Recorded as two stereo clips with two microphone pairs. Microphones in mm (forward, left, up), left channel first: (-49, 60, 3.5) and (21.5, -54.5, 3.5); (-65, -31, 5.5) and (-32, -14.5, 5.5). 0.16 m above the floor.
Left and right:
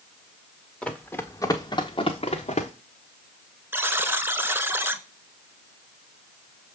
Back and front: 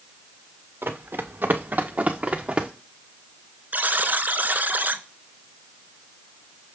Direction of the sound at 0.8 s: 35° left.